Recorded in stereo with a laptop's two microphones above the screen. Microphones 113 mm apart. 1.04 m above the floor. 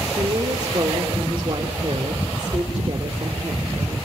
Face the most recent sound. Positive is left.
turn(degrees=-45)  # may be behind; listen again after turning